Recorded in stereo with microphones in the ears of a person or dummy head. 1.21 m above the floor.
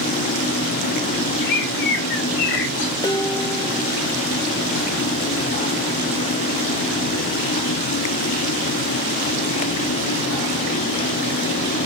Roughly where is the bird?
Left.